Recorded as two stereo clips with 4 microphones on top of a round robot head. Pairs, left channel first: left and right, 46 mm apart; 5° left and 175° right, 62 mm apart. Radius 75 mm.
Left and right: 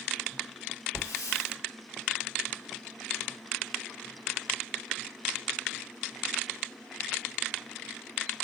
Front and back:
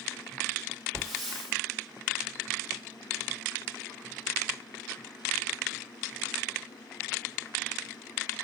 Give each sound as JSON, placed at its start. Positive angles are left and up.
{"t": 0.9, "sound": "a hiss", "azimuth_deg": 90, "distance_m": 3.0}